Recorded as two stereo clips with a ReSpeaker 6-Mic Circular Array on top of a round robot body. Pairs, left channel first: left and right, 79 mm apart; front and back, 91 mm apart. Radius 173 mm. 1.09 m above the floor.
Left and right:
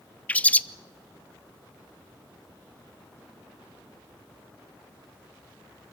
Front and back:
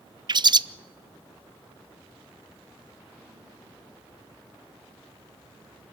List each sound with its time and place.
0.3 s a bird: 160° left, 0.7 m